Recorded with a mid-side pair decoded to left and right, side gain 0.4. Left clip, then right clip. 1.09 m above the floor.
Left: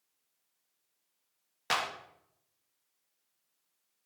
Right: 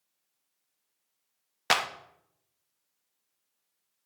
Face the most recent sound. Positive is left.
turn(degrees=-60)